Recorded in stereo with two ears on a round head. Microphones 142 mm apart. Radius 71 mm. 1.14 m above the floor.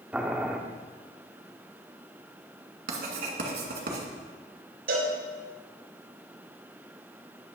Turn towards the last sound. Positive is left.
turn(degrees=-70)  # may be behind; listen again after turning